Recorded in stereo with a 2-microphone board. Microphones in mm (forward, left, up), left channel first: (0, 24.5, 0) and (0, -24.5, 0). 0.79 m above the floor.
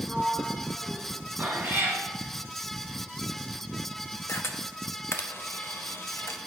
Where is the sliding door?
5° left (ahead or behind), 1.0 m.